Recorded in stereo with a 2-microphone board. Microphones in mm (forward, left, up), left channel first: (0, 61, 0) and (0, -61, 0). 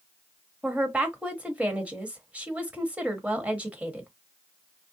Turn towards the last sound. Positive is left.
turn(degrees=-10)  # may be behind; listen again after turning